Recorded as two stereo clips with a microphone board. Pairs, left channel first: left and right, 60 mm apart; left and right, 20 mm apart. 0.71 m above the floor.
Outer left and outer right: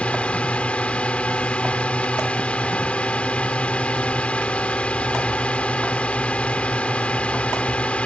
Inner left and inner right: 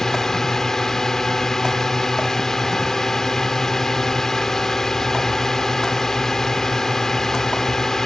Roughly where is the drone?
Left.